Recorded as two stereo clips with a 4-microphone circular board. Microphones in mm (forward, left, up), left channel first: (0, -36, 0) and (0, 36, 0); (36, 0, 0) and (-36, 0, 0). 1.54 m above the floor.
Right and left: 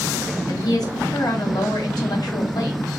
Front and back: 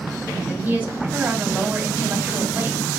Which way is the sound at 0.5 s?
115° right.